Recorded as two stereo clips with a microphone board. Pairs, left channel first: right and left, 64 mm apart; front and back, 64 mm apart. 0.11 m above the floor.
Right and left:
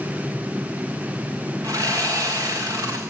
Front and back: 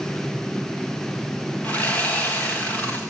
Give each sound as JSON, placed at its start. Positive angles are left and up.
{"t": 1.6, "sound": "sawing", "azimuth_deg": 65, "distance_m": 4.5}